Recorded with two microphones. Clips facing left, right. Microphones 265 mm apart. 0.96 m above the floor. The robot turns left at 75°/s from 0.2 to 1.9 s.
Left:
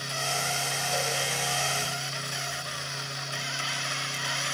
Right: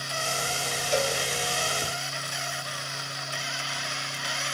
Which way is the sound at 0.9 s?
80° right.